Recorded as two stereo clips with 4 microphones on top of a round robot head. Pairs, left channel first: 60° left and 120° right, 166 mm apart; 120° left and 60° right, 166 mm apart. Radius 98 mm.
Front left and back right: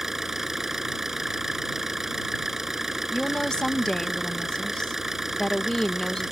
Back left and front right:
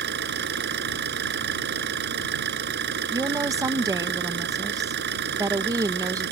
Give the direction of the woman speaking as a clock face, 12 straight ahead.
1 o'clock.